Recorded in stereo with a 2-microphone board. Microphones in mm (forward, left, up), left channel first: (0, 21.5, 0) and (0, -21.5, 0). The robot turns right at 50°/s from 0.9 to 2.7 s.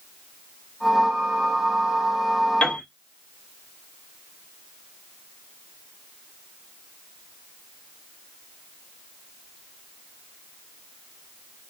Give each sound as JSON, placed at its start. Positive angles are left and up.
{"t": 2.6, "sound": "a piano", "side_deg": 20, "distance_m": 1.2}